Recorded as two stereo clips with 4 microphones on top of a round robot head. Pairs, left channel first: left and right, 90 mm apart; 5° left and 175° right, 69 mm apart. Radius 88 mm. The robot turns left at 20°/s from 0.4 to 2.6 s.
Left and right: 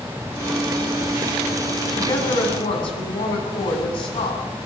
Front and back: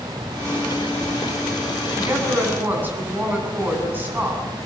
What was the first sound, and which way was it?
A woman speaking, 135° left.